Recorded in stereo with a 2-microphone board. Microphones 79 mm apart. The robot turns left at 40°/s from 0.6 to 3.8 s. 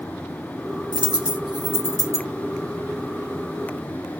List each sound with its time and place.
0.9 s a dropped coin: 80° right, 1.8 m; by 2.3 s 45° right (ahead or behind), 1.8 m